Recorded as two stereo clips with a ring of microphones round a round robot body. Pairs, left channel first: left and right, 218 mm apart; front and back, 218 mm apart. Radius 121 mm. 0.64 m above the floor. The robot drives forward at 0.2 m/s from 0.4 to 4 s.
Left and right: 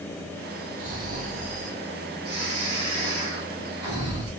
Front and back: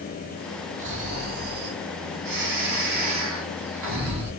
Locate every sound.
0.8 s snoring: 135° right, 0.6 m; by 4.3 s 165° right, 1.1 m